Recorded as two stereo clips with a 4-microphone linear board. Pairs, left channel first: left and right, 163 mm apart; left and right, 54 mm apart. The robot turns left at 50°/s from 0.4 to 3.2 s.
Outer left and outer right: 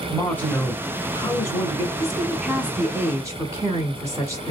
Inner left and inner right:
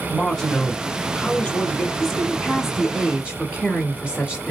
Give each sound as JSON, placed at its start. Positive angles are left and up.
{"t": 0.1, "sound": "a man speaking", "side_deg": 10, "distance_m": 1.1}
{"t": 2.0, "sound": "a woman speaking", "side_deg": 5, "distance_m": 1.2}